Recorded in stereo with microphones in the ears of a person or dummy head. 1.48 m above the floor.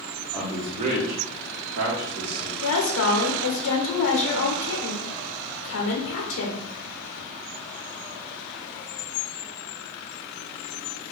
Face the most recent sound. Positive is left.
turn(degrees=85)